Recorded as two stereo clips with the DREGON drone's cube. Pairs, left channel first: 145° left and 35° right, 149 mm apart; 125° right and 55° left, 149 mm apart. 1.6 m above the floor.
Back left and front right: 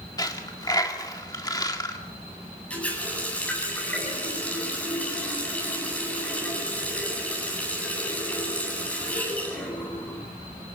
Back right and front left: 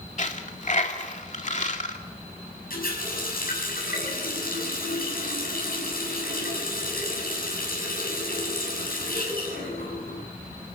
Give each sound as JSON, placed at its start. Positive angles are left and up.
{"t": 0.2, "sound": "a dropped coin", "azimuth_deg": -150, "distance_m": 2.0}
{"t": 2.7, "sound": "a running tap", "azimuth_deg": -135, "distance_m": 9.0}